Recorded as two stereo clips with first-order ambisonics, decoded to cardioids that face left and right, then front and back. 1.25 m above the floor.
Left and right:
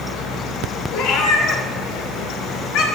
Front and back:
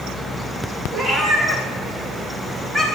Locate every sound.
0.9 s a cat meowing: 105° left, 1.3 m